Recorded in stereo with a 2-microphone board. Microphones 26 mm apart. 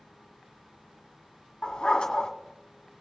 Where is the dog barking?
40° left (ahead or behind), 2.0 m.